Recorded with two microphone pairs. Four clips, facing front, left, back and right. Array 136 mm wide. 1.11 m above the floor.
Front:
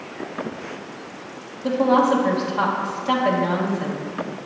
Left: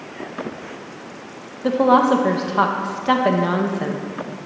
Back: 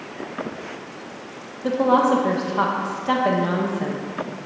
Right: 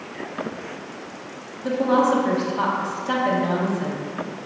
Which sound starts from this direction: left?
A woman speaking, at 1.6 s.